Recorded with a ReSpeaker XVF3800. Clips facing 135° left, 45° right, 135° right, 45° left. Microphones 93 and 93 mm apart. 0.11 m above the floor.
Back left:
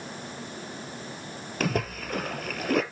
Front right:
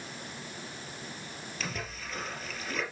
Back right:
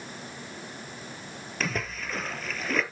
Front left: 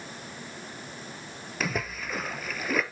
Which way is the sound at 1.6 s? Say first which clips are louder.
Back left 12 dB, front left 1 dB; 130° left.